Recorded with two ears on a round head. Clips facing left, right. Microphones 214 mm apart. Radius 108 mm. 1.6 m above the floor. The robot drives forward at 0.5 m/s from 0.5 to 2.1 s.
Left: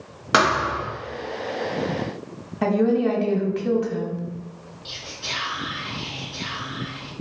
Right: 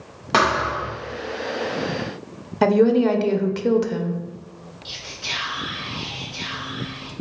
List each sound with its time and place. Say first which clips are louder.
0.3 s a thud: even; 15° left (ahead or behind), 0.9 m
2.6 s a woman speaking: right 4 dB; 55° right (ahead or behind), 0.5 m
4.8 s whispering: even; centre (ahead or behind), 2.0 m